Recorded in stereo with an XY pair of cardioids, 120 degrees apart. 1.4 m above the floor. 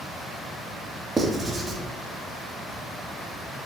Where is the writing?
25° right, 1.8 m.